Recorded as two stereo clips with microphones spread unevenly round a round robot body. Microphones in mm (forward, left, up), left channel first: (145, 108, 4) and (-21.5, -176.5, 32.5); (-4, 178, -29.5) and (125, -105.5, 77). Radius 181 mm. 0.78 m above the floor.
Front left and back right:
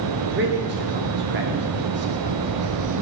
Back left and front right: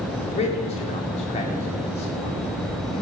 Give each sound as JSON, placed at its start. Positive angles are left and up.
{"t": 0.3, "sound": "a man speaking", "azimuth_deg": 180, "distance_m": 1.9}